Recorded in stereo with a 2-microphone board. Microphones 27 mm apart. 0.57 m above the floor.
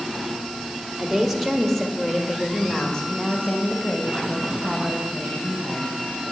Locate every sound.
1.0 s a woman speaking: 10° right (ahead or behind), 1.6 m; by 5.9 s 55° left (ahead or behind), 3 m